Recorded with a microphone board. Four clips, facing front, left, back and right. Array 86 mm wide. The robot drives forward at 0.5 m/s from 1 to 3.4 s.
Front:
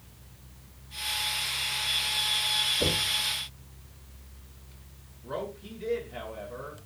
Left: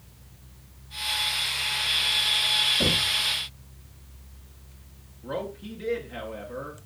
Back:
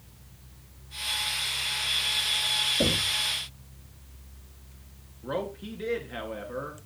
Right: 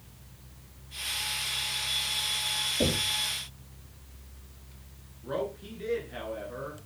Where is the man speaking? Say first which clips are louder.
Even, back 3 dB; 165° left, 3 m.